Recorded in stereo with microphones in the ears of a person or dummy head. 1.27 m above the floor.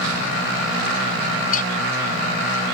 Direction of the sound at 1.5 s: 50° left (ahead or behind).